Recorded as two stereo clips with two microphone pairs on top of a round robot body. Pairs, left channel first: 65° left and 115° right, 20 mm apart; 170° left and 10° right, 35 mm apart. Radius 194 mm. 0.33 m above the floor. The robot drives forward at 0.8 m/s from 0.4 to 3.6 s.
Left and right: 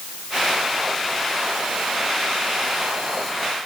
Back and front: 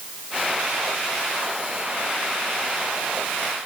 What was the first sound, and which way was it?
Only background noise.